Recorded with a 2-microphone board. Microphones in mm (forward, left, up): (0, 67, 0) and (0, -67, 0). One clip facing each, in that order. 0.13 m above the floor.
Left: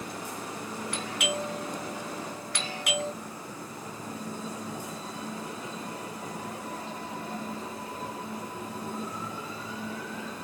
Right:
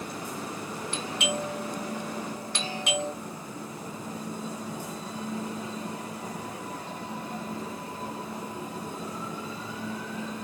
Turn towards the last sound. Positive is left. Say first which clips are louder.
# right 1 dB
turn(degrees=-25)  # may be behind; listen again after turning